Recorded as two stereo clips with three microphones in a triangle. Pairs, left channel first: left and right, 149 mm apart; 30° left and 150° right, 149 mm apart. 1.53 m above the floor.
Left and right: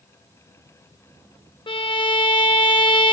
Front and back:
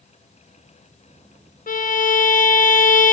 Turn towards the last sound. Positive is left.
turn(degrees=40)